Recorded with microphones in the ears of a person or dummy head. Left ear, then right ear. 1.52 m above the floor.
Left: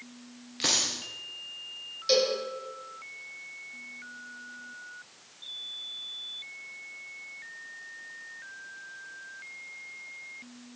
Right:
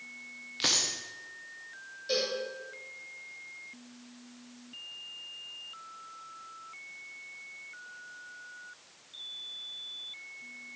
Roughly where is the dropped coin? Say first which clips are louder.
Left 1 dB; centre.